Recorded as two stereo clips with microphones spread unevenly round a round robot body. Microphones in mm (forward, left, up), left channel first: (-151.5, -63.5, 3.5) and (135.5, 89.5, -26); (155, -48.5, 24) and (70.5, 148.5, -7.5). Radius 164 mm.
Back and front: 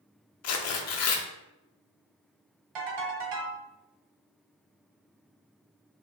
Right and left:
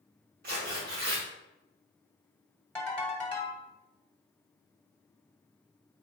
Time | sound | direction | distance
0.4 | tearing paper | 175° left | 0.6 m
2.8 | a ringtone | 15° left | 1.7 m